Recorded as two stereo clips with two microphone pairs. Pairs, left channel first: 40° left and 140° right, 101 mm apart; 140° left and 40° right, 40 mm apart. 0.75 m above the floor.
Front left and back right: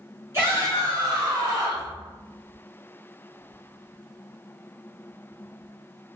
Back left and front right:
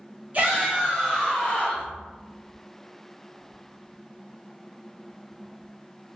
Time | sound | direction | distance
0.3 | a shout | 85° right | 1.2 m